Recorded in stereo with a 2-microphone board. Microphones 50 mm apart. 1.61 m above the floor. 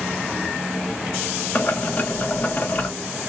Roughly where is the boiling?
Left.